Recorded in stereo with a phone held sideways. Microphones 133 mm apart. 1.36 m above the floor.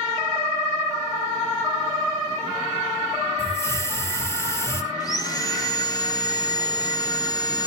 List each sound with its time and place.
3.4 s a hiss: 20° left (ahead or behind), 3 m
5.0 s sawing: 30° left (ahead or behind), 1.7 m